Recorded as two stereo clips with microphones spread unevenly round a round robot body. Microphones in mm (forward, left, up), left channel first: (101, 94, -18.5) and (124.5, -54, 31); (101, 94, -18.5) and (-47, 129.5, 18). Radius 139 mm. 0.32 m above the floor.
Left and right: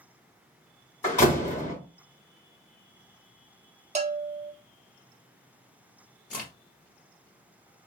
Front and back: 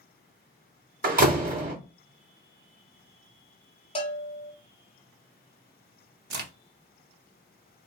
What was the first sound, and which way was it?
A door slam, 145° left.